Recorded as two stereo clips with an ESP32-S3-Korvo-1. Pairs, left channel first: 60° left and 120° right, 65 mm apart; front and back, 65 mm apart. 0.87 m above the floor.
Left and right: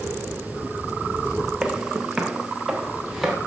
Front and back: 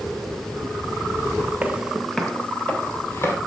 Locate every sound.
1.6 s footsteps: 175° left, 0.9 m; by 3.4 s 30° right, 1.4 m